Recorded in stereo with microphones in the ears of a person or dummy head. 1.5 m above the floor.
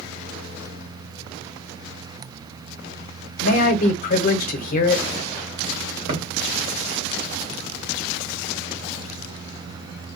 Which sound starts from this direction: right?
A thud, at 6.1 s.